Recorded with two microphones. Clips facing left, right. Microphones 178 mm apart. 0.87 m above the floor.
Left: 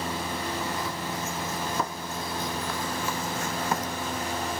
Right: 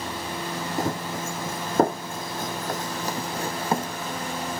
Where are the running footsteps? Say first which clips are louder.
Right 5 dB; 50° right (ahead or behind); by 3.9 s 30° right (ahead or behind).